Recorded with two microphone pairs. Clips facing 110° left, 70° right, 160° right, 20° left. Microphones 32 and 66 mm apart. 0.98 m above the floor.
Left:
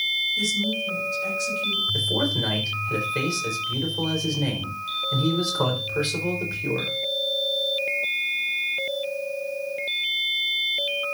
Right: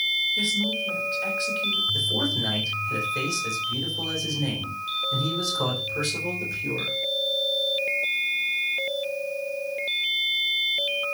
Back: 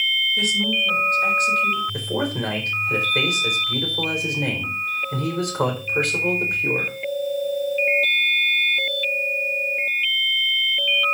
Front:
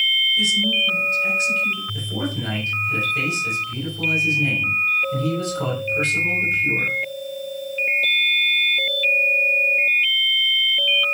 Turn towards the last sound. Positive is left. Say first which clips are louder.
# left 1 dB, back 3 dB
turn(degrees=170)